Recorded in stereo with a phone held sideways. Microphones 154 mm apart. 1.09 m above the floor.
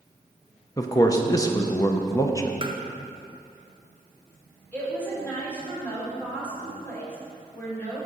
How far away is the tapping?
About 0.8 m.